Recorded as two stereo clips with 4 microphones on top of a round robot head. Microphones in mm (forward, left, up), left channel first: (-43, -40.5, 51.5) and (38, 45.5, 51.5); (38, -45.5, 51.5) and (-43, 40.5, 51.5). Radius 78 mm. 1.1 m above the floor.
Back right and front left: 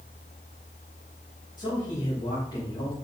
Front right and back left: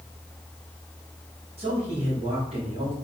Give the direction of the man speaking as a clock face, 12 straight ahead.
6 o'clock.